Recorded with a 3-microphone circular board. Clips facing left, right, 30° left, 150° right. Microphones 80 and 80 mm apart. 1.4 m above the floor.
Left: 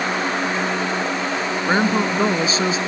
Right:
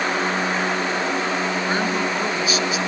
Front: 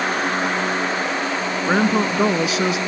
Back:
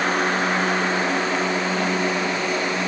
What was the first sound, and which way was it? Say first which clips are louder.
A woman speaking: left 3 dB, front 4 dB; 30° left.